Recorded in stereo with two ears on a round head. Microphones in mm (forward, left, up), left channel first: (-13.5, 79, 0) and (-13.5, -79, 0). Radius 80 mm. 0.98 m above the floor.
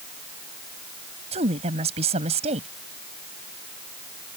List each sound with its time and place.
1.3 s a woman speaking: 35° right (ahead or behind)